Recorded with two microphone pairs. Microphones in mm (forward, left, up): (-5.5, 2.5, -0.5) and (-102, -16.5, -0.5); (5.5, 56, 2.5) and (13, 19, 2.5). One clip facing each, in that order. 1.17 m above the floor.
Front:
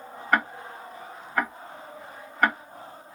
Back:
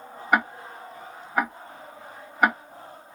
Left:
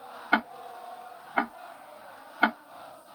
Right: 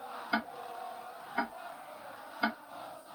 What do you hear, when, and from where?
0.3 s ticking: 120° left, 0.5 m